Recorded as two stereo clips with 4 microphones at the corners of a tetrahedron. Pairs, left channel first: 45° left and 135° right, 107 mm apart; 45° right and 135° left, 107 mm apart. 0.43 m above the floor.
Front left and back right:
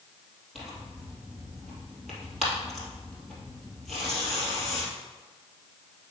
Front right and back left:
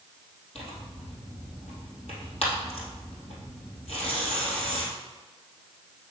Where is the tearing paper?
40° right, 2.5 m.